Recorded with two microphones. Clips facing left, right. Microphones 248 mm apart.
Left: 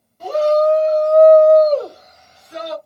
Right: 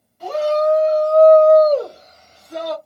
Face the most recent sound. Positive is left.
turn(degrees=-55)  # may be behind; listen again after turning